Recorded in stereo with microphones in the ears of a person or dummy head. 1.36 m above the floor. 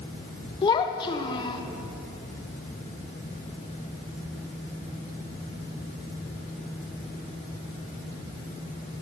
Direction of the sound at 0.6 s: 25° left (ahead or behind).